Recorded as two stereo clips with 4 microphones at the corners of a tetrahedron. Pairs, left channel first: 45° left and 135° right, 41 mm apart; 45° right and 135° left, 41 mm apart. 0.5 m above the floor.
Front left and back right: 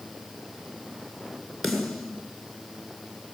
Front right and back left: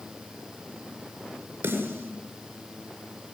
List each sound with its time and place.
1.6 s a snare drum: 140° left, 8 m